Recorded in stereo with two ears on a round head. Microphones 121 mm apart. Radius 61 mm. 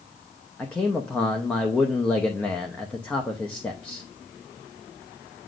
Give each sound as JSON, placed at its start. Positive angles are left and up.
{"t": 0.6, "sound": "a man speaking", "side_deg": 10, "distance_m": 0.8}